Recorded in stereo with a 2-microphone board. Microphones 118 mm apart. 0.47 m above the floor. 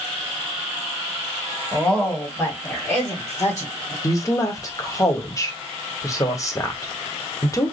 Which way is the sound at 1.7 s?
5° left (ahead or behind).